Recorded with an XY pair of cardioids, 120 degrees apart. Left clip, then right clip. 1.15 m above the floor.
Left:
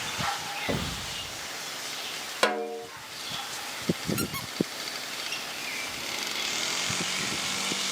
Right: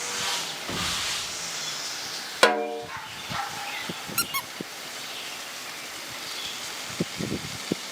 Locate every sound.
0.7 s an explosion: 60° left, 1.3 m
2.4 s a snare drum: 30° right, 0.8 m
4.2 s a squeak: 35° right, 1.0 m